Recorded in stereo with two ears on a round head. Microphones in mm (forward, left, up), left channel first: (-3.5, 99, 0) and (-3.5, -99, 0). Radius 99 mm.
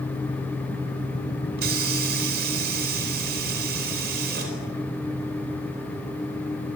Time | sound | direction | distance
1.6 | a hiss | 45° right (ahead or behind) | 5 m